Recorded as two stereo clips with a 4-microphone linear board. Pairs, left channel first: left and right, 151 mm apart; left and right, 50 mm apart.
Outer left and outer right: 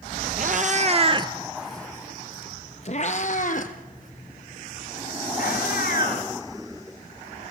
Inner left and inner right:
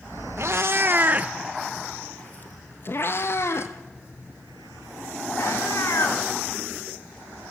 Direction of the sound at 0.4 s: 60° right (ahead or behind).